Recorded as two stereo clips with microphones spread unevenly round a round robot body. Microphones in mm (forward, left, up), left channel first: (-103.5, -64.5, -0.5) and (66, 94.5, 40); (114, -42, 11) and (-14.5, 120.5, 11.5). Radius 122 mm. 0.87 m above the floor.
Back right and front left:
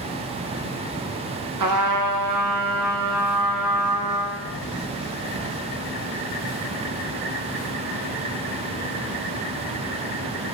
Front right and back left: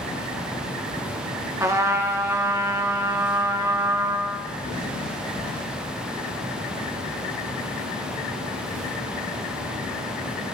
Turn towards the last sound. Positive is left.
turn(degrees=50)